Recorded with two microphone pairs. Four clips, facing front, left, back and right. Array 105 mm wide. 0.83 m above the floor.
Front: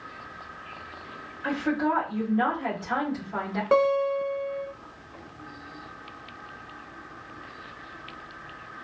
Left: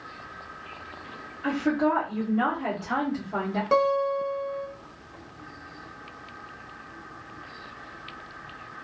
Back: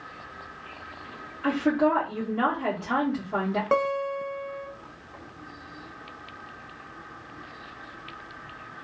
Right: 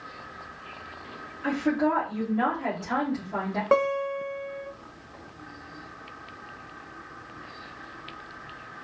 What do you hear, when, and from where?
1.4 s a woman speaking: straight behind, 1.9 m
3.7 s a guitar: 100° right, 1.0 m